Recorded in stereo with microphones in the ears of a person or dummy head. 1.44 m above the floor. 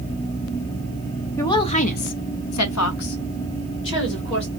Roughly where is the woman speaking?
Centre.